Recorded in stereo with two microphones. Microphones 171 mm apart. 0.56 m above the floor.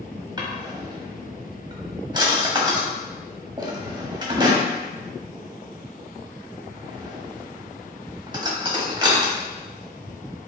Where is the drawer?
25° right (ahead or behind), 1.0 m.